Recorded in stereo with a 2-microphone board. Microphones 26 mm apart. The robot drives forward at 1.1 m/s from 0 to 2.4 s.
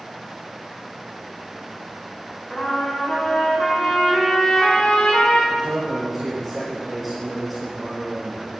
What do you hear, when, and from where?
2.5 s a trumpet: 40° left (ahead or behind), 7 m
5.5 s a man speaking: 5° right (ahead or behind), 3 m